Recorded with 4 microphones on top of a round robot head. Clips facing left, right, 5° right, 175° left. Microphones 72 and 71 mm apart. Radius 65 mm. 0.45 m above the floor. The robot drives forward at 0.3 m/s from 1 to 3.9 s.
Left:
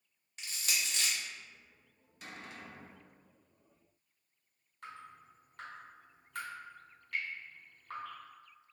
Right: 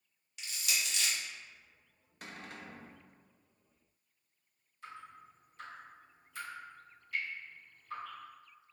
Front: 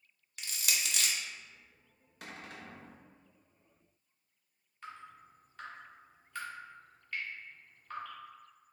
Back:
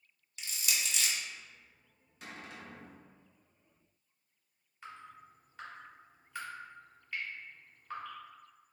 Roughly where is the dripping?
Left.